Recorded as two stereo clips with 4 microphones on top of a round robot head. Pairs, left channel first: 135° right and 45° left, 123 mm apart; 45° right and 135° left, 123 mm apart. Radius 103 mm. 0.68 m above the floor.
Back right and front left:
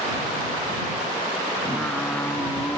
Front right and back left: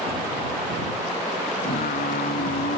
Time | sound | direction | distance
1.6 | singing | 55° right | ?